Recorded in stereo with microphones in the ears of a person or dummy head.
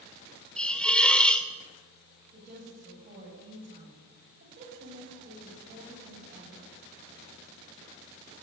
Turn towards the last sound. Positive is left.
turn(degrees=-40)  # may be behind; listen again after turning